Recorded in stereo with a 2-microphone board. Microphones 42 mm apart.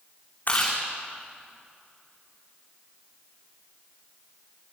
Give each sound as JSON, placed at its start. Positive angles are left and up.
{"t": 0.5, "sound": "chewing", "side_deg": 40, "distance_m": 7.5}